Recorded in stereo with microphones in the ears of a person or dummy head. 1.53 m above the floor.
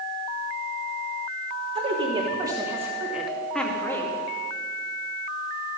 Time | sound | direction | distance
1.8 | a woman speaking | 35° right (ahead or behind) | 2.5 m